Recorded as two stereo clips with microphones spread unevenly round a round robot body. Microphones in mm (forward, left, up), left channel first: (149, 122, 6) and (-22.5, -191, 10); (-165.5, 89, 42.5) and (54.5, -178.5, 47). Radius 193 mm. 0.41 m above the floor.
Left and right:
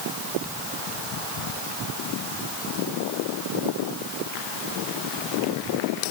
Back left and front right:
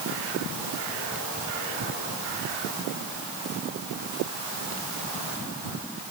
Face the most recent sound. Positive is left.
No sound to turn to.